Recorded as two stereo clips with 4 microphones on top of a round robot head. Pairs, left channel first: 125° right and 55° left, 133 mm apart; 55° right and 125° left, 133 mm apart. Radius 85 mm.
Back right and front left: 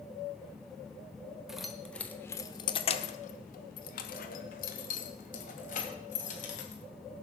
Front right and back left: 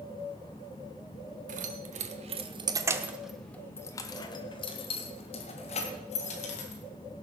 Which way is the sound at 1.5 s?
145° left.